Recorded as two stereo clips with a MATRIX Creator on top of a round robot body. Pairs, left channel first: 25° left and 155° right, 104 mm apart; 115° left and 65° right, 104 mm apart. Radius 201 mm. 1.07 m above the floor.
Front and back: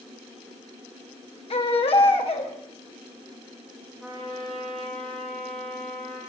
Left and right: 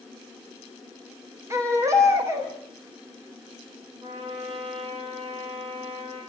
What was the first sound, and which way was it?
A baby crying, 5° right.